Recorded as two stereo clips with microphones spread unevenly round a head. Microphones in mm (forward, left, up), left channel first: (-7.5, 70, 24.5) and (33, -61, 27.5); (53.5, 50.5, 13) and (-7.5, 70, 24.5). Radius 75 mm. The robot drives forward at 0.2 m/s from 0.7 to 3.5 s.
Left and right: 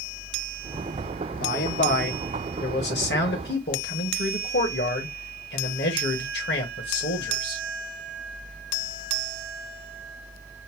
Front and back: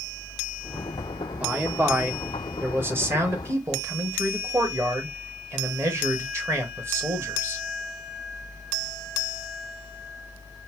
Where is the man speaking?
100° left, 1.0 m; by 7.6 s 125° left, 1.2 m.